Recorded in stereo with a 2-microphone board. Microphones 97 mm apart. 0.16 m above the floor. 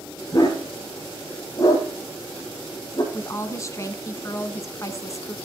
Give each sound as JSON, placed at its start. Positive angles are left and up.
{"t": 0.3, "sound": "a dog barking", "side_deg": 35, "distance_m": 3.5}
{"t": 3.1, "sound": "a woman speaking", "side_deg": 30, "distance_m": 1.2}